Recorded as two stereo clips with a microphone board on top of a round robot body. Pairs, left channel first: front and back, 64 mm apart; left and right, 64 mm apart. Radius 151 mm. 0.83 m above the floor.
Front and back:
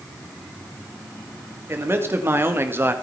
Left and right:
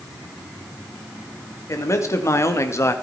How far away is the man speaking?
About 3 m.